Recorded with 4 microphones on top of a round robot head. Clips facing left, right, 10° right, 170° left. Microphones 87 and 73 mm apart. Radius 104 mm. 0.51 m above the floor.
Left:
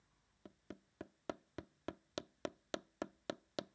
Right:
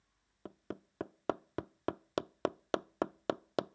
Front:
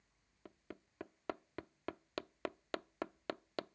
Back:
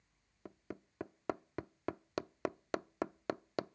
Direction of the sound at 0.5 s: 120° right.